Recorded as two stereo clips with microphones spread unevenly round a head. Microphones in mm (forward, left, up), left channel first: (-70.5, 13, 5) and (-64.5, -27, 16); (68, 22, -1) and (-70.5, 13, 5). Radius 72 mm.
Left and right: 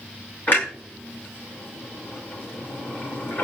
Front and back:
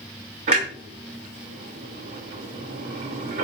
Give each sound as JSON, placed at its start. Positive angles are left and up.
{"t": 0.5, "sound": "a clunk", "azimuth_deg": 145, "distance_m": 5.5}